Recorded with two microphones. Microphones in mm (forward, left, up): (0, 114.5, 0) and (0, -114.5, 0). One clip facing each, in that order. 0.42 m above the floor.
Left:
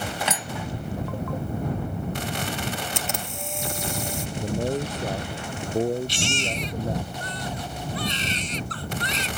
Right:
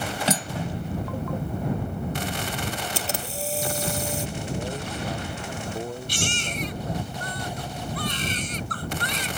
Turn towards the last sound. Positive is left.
turn(degrees=-55)  # may be behind; listen again after turning